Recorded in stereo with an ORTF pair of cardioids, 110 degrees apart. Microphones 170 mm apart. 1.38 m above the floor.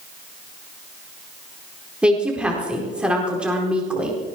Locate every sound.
2.0 s a woman speaking: 5° right, 4.5 m